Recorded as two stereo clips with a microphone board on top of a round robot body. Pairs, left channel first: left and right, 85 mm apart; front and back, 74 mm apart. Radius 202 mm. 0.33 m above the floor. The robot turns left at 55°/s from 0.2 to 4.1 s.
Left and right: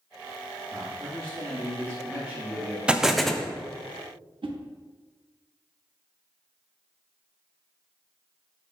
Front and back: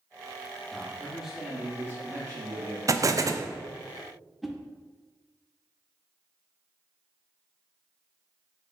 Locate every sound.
0.7 s a man speaking: 70° right, 1.6 m; by 2.8 s 175° left, 1.6 m
2.9 s an explosion: 165° right, 0.5 m; by 3.5 s 165° left, 0.5 m
4.4 s a whoosh: 90° right, 0.6 m